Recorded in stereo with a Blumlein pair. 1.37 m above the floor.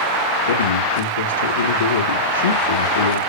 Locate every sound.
0.5 s a man speaking: 65° left, 3 m